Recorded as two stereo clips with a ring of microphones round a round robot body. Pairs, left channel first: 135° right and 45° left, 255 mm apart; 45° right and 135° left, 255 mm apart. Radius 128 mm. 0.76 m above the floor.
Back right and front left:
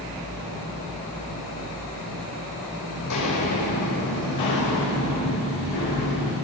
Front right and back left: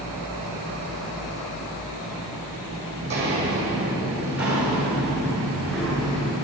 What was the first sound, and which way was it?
Footsteps, 165° right.